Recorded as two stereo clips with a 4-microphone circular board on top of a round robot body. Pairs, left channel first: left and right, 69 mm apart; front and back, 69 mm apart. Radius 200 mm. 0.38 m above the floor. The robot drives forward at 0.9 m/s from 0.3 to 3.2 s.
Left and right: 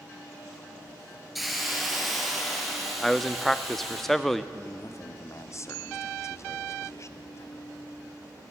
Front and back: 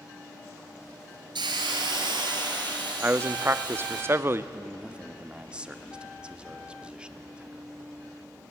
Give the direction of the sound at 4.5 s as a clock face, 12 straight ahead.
8 o'clock.